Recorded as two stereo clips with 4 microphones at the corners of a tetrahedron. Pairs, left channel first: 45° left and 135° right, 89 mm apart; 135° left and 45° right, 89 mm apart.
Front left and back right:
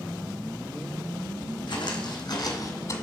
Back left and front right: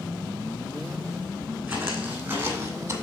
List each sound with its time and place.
1.7 s footsteps: 30° left, 3 m; by 3.0 s 10° left, 1.6 m